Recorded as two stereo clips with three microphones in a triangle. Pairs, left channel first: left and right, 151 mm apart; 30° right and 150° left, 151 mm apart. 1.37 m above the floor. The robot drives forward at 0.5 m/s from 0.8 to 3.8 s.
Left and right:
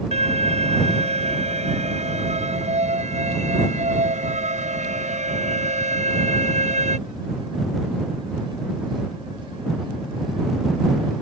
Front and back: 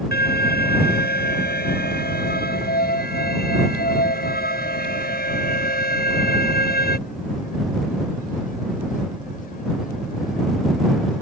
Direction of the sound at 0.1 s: 40° right.